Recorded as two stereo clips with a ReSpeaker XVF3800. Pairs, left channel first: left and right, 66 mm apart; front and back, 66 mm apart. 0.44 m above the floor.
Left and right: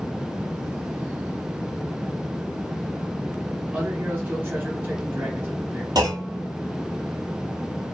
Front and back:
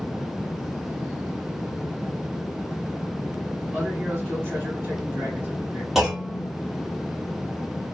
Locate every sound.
3.7 s a man speaking: 135° right, 1.9 m
6.0 s a clunk: 90° right, 1.2 m